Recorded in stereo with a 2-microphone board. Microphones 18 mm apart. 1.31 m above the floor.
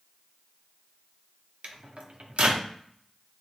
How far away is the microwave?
About 0.5 m.